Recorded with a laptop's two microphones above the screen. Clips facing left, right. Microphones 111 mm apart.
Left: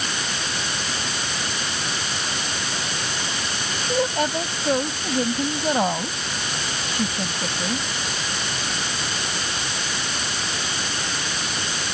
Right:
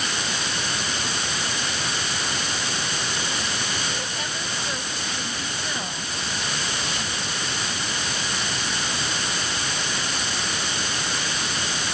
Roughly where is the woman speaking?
Left.